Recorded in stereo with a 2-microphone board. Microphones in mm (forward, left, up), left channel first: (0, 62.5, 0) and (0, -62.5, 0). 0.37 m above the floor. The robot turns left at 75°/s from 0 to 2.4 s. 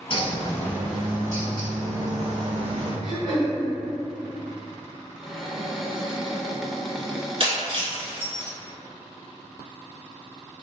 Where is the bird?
65° left, 1.4 m; by 2.9 s 110° right, 1.4 m.